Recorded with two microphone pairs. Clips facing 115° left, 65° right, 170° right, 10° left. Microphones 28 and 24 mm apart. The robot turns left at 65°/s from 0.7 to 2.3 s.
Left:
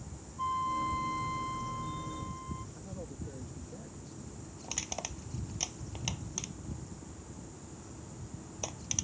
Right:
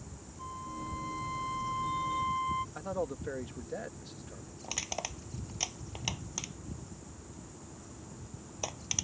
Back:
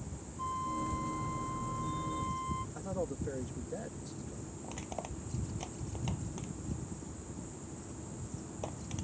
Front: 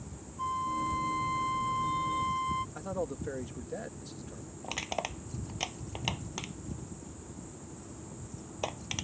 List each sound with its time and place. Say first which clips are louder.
0.4 s a flute: left 9 dB, front 4 dB; 75° left; by 2.6 s 30° right
2.8 s a man speaking: right 9 dB, front 2 dB; 50° right
4.6 s crushing: right 2 dB, front 8 dB; 15° left